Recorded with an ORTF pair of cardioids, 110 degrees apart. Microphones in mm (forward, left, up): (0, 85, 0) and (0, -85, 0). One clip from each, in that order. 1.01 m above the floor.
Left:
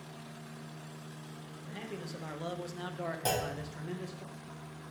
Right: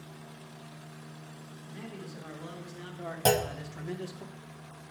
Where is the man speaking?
55° left, 1.4 m; by 4.2 s 25° right, 0.8 m.